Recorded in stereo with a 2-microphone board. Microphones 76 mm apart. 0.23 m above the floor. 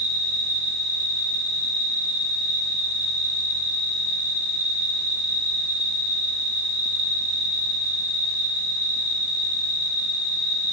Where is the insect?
60° left (ahead or behind), 3 m.